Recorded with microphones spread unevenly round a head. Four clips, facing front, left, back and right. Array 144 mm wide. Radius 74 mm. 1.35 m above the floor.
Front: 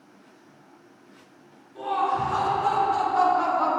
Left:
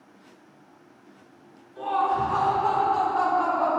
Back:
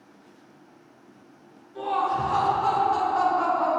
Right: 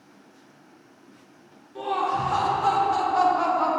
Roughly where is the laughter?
Right.